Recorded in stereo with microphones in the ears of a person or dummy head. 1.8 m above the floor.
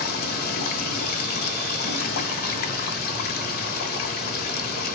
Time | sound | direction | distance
0.0 | running water | 55° left (ahead or behind) | 0.8 m